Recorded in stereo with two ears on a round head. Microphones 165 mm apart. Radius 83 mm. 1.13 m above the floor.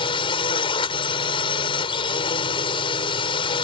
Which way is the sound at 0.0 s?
30° left (ahead or behind).